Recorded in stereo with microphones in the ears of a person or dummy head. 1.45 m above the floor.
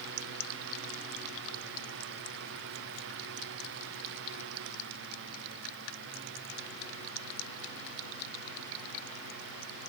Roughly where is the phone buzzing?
I don't hear a phone buzzing.